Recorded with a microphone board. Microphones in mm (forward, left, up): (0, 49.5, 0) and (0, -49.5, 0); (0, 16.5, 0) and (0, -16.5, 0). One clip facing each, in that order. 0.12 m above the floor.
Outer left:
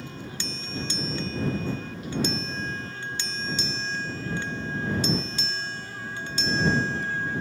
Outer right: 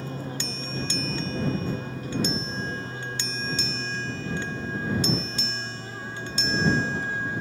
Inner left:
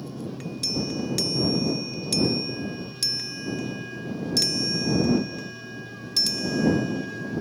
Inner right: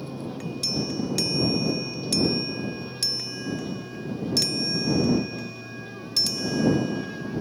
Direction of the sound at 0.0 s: 40° right (ahead or behind).